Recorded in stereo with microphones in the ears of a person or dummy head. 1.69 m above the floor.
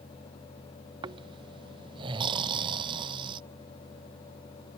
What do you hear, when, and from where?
1.0 s snoring: 25° right (ahead or behind)